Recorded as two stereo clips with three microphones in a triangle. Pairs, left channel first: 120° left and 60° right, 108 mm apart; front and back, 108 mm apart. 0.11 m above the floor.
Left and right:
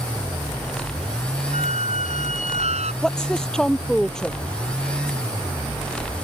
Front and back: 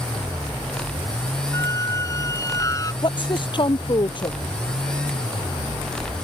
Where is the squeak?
60° right.